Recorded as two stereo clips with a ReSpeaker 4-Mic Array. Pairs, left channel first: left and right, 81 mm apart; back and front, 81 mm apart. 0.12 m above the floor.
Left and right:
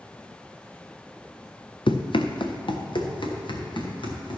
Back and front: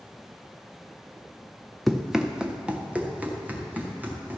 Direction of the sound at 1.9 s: 90° left.